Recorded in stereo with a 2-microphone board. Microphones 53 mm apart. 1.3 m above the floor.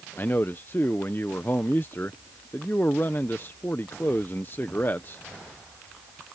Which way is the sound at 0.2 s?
40° left (ahead or behind).